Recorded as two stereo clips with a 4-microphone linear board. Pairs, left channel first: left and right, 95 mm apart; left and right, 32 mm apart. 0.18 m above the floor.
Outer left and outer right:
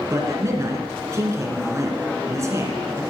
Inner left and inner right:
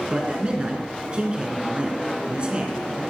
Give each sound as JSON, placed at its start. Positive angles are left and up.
{"t": 0.1, "sound": "a man speaking", "side_deg": -30, "distance_m": 2.5}